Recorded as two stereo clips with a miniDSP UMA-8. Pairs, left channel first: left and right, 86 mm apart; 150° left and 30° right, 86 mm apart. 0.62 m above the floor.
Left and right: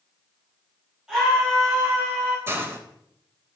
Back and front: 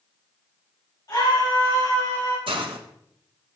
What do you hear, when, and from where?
1.1 s a scream: 170° right, 3.5 m; by 2.4 s 155° right, 2.5 m
2.5 s a hiss: 30° right, 0.9 m